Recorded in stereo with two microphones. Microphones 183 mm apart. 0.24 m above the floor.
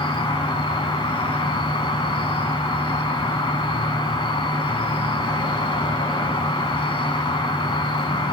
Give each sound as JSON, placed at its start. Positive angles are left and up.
{"t": 0.0, "sound": "an insect", "side_deg": 30, "distance_m": 0.9}